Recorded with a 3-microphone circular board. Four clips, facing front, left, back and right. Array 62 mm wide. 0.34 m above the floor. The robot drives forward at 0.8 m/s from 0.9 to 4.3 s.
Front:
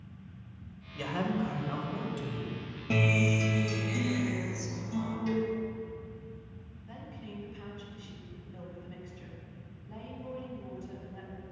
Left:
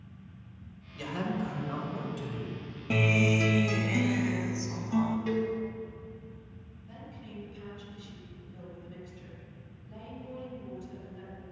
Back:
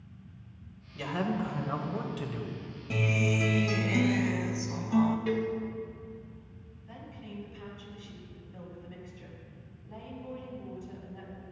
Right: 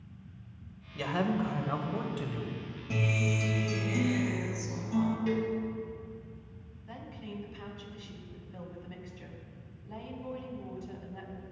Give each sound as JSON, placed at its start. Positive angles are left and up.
{"t": 0.9, "sound": "a man speaking", "azimuth_deg": -80, "distance_m": 1.3}
{"t": 2.9, "sound": "a guitar", "azimuth_deg": 50, "distance_m": 0.6}
{"t": 5.3, "sound": "a cowbell", "azimuth_deg": 175, "distance_m": 1.7}
{"t": 6.9, "sound": "a woman speaking", "azimuth_deg": -90, "distance_m": 2.5}